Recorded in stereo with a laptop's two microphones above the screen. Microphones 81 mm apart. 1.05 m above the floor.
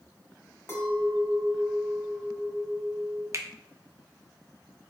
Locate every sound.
0.7 s a clink: 35° left (ahead or behind), 1.4 m
3.3 s a finger snap: 40° right (ahead or behind), 0.5 m